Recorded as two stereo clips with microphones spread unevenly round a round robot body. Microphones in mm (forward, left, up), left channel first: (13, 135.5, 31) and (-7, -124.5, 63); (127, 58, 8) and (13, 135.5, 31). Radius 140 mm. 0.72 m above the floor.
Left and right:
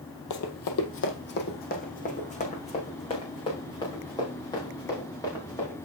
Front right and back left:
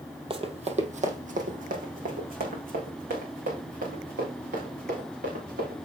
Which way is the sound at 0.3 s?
110° left.